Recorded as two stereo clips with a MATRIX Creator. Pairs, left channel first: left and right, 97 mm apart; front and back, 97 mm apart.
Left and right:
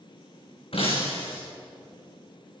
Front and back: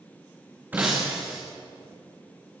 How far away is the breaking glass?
About 7 m.